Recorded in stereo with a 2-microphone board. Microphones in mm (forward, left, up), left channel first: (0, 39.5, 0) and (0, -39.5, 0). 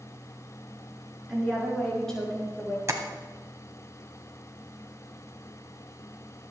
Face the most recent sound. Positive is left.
turn(degrees=-40)  # may be behind; listen again after turning